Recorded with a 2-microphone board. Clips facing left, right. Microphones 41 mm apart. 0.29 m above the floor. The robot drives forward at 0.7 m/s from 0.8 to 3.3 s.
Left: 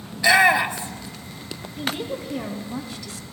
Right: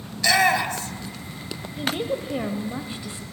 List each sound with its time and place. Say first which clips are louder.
0.1 s a shout: left 3 dB; 20° left (ahead or behind), 1.0 m
1.8 s a woman speaking: right 2 dB; 25° right (ahead or behind), 1.0 m; by 3.2 s 20° right (ahead or behind), 1.1 m